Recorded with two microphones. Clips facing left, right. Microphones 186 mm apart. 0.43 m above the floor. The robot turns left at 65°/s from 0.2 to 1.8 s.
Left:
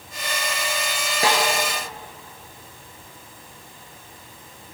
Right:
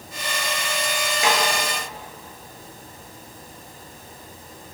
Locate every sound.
1.2 s a snare drum: 35° left (ahead or behind), 5 m; by 1.5 s 20° left (ahead or behind), 5 m